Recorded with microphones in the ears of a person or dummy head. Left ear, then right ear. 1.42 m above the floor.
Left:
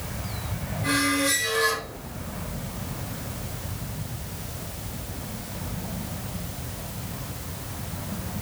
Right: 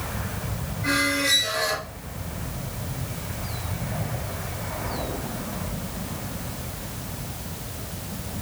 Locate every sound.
0.8 s a squeak: 5° left (ahead or behind), 1.5 m